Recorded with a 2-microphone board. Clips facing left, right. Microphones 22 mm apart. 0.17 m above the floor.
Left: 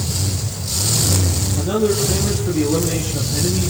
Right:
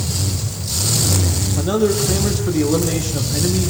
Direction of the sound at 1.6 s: 20° right (ahead or behind).